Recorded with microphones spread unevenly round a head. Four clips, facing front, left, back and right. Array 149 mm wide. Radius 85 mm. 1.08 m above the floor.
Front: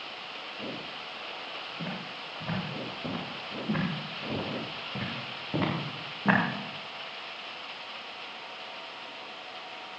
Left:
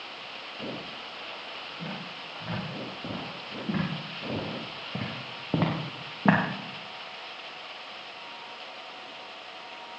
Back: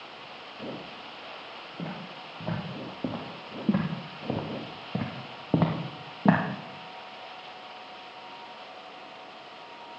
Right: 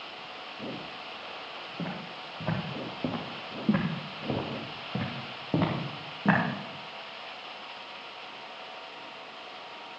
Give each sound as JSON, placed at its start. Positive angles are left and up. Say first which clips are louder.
{"t": 1.8, "sound": "footsteps", "louder": "right 3 dB, back 2 dB", "azimuth_deg": -130, "distance_m": 5.0}